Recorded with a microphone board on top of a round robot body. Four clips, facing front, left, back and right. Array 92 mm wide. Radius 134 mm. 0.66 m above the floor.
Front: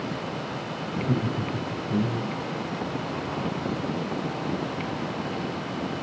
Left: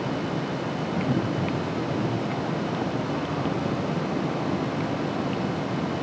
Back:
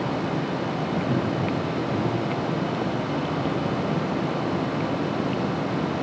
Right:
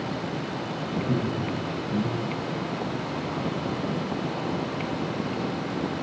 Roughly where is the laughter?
Ahead.